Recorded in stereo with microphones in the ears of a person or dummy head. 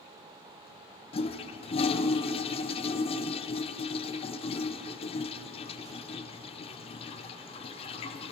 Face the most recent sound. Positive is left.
turn(degrees=25)  # may be behind; listen again after turning